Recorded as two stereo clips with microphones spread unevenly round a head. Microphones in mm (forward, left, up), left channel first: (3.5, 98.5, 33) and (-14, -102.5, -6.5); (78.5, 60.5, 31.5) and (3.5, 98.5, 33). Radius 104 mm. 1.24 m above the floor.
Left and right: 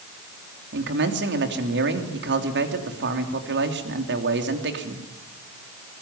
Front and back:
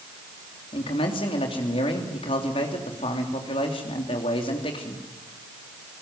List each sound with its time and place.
0.7 s a man speaking: 60° right, 3 m